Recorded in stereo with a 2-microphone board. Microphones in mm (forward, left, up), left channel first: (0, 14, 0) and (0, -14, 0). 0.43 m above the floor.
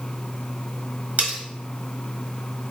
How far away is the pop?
I don't hear a pop.